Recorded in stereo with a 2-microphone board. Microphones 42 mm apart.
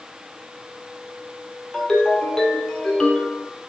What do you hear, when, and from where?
1.7 s a ringtone: 20° left (ahead or behind), 1.4 m